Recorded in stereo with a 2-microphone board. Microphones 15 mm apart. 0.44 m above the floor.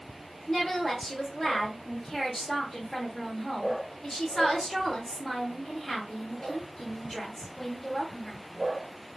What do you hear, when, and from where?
0.5 s a woman speaking: 20° left (ahead or behind), 0.9 m